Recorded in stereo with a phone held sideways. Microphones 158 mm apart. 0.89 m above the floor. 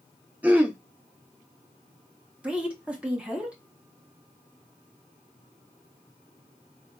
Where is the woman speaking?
10° right (ahead or behind), 1.0 m.